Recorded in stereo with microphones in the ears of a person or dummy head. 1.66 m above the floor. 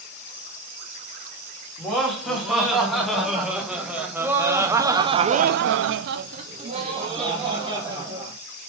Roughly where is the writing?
I don't hear writing.